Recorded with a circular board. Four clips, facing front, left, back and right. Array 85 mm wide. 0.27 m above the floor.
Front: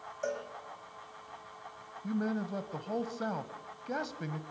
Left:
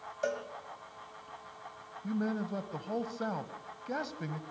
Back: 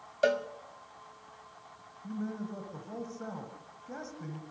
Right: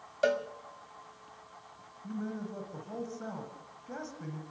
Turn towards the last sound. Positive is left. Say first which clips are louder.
# left 4 dB, front 4 dB
turn(degrees=40)